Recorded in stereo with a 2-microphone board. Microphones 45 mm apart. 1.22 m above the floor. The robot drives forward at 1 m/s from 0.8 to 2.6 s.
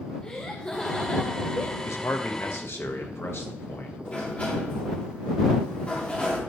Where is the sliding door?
30° left (ahead or behind), 2.5 m.